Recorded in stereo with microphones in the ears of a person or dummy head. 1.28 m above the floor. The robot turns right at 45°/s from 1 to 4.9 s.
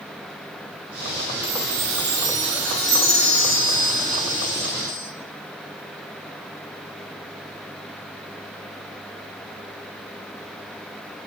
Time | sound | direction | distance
1.4 | a chime | 75° right | 0.8 m